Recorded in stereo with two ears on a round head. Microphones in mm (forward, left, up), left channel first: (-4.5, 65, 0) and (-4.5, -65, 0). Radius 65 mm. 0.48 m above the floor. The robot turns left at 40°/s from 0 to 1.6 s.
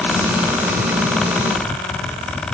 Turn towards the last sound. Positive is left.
No sound to turn to.